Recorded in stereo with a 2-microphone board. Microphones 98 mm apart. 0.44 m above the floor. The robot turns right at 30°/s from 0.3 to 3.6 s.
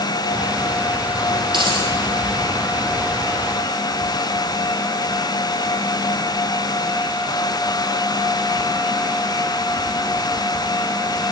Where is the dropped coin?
50° right (ahead or behind), 5 m; by 1.9 s 60° right (ahead or behind), 5 m.